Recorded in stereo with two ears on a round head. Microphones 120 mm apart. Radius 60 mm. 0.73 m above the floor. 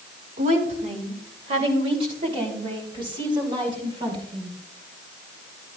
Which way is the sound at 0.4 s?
60° right (ahead or behind).